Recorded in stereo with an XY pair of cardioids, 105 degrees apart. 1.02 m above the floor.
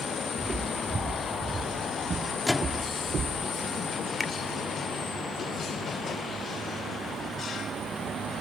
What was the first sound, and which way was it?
Footsteps, 25° right.